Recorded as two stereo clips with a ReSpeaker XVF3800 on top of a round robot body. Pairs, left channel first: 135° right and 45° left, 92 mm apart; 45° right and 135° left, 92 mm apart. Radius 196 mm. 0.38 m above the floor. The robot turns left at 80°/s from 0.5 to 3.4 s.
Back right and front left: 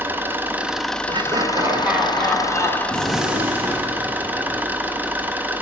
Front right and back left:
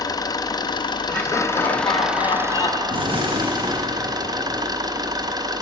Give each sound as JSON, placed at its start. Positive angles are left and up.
{"t": 0.0, "sound": "an engine running", "azimuth_deg": -20, "distance_m": 0.7}
{"t": 1.1, "sound": "laughter", "azimuth_deg": 35, "distance_m": 1.4}
{"t": 2.9, "sound": "a gunshot", "azimuth_deg": 155, "distance_m": 2.0}